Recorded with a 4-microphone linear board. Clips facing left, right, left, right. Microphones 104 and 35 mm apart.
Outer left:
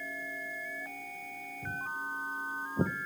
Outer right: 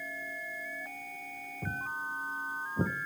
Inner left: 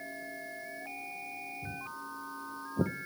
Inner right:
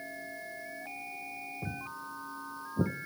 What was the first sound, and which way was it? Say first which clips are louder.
Footsteps: outer right 1 dB, inner right 1 dB; 55° right (ahead or behind).